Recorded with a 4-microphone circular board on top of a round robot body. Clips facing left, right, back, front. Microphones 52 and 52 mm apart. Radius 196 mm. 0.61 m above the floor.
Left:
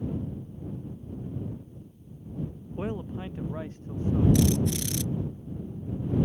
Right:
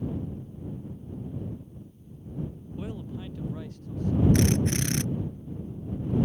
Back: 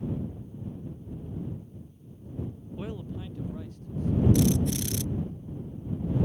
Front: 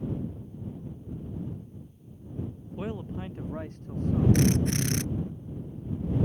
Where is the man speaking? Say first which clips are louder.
Left 4 dB, front 3 dB; 65° left; by 4.2 s 30° left.